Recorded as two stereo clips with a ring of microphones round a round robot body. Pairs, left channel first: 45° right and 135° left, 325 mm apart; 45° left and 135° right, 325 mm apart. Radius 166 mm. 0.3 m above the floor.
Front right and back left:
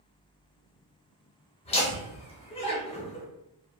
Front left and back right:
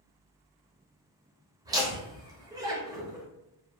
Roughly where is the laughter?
Right.